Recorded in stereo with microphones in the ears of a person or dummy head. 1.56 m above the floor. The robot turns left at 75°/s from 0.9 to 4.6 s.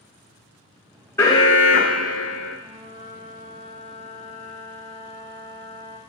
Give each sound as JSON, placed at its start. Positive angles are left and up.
{"t": 1.2, "sound": "an alarm", "azimuth_deg": 170, "distance_m": 0.5}
{"t": 2.6, "sound": "a flute", "side_deg": -10, "distance_m": 1.4}